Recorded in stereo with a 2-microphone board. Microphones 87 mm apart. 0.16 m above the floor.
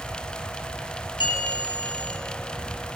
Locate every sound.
1.2 s a bell: 65° left (ahead or behind), 2.5 m